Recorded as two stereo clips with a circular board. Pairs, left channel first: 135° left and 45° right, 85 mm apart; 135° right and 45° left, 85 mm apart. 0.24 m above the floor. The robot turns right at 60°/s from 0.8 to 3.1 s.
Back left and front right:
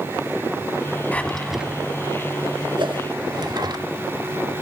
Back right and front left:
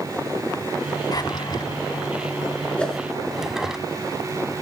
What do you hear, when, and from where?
1.1 s a drawer: 155° right, 1.1 m; by 3.8 s 35° right, 1.1 m
2.8 s a whoosh: 60° right, 2.5 m; by 3.0 s 45° right, 2.5 m